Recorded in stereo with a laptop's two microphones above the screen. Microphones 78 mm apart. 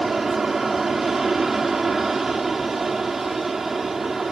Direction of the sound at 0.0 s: 5° right (ahead or behind).